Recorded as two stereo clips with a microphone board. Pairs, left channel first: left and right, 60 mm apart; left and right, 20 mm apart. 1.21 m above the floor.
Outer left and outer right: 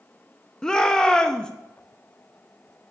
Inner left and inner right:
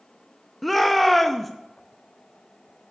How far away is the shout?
About 0.6 m.